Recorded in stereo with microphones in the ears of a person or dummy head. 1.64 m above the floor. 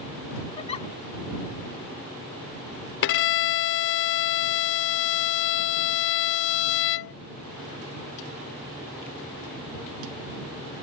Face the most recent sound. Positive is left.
turn(degrees=55)  # may be behind; listen again after turning